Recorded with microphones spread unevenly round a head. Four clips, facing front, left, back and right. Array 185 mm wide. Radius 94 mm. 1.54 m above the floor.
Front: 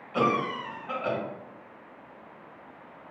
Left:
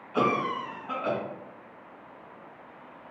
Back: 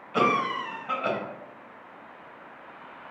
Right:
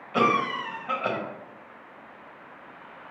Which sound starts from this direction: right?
A cough, at 0.1 s.